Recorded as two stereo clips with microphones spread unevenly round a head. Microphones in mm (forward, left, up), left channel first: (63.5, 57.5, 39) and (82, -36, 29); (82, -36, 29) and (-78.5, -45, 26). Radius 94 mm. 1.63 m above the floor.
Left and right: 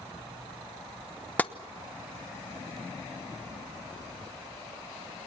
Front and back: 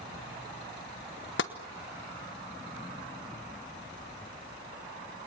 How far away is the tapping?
About 1.1 m.